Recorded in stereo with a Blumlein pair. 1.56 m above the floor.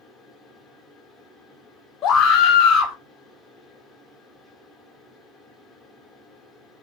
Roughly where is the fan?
Ahead.